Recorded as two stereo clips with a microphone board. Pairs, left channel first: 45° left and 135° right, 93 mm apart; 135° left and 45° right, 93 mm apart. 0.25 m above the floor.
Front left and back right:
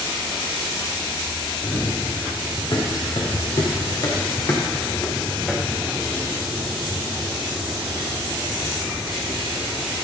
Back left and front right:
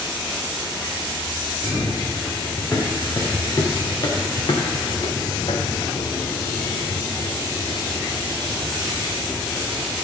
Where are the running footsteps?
70° left, 3 m; by 9.9 s 155° right, 2.5 m.